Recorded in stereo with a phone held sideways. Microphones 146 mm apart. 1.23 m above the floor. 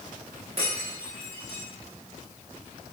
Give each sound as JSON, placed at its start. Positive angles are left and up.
{"t": 0.6, "sound": "breaking glass", "side_deg": -40, "distance_m": 7.5}